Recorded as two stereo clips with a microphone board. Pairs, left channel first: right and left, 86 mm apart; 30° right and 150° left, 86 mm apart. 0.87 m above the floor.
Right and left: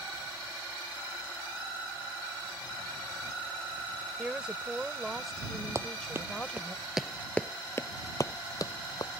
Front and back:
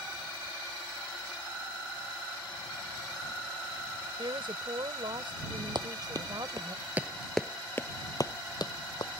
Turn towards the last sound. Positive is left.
turn(degrees=-55)